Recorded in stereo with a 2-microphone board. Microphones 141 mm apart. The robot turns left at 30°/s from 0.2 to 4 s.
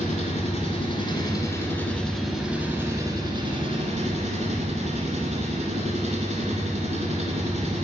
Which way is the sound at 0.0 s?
60° left.